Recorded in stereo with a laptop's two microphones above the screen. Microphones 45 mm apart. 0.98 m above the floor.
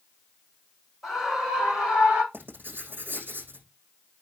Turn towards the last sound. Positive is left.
turn(degrees=-50)  # may be behind; listen again after turning